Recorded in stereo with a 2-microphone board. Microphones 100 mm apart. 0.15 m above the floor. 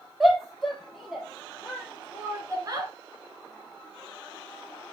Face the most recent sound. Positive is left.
turn(degrees=-40)  # may be behind; listen again after turning